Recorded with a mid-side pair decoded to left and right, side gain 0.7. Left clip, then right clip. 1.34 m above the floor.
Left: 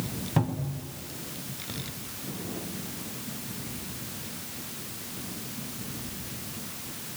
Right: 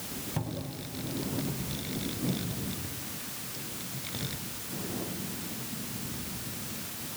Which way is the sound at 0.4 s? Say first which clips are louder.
Left 9 dB; 40° left.